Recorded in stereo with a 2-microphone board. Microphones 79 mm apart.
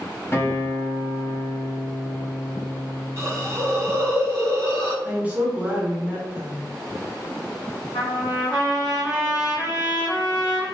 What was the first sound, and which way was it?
A guitar, 30° left (ahead or behind).